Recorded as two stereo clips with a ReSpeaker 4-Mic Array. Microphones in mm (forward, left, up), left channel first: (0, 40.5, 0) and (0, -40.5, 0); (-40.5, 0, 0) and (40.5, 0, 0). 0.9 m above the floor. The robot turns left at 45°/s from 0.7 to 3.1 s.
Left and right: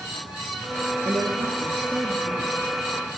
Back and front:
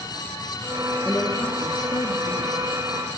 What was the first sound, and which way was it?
A woman speaking, 120° right.